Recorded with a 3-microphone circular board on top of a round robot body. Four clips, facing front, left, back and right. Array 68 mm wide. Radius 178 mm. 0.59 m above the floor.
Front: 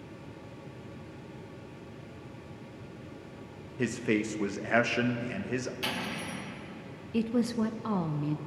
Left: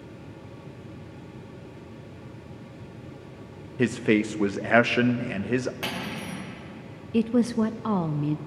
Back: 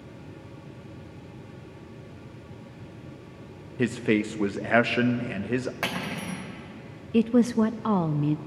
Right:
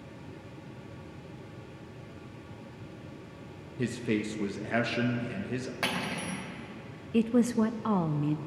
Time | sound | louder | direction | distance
3.8 | a man speaking | left 8 dB, back 5 dB | 120° left | 0.8 m
5.8 | cutlery clinking | even, back 4 dB | 165° right | 1.9 m
7.1 | a woman speaking | left 2 dB, back 7 dB | 170° left | 0.6 m